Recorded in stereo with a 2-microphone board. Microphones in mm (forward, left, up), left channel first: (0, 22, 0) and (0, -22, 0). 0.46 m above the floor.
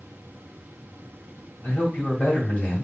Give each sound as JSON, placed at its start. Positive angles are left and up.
{"t": 1.6, "sound": "a man speaking", "side_deg": 45, "distance_m": 3.0}